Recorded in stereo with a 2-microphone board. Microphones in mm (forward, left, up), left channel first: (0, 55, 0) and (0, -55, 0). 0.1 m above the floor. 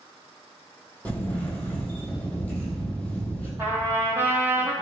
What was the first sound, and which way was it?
A camera shutter, 15° left (ahead or behind).